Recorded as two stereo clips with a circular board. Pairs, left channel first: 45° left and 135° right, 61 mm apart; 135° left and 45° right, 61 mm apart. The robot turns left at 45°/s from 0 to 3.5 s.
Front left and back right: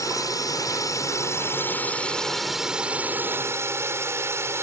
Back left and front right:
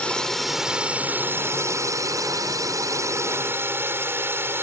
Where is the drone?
65° left; by 4.6 s 90° right.